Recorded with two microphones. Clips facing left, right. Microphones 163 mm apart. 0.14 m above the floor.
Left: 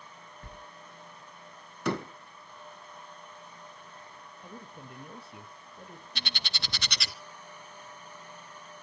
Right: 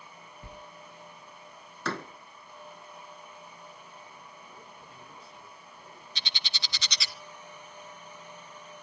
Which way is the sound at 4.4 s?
65° left (ahead or behind).